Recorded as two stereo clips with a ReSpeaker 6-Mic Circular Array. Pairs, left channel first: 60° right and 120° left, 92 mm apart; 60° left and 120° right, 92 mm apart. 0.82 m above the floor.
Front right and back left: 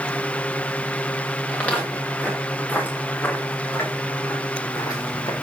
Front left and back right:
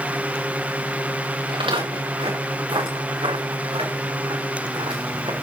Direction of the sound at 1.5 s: 135° right.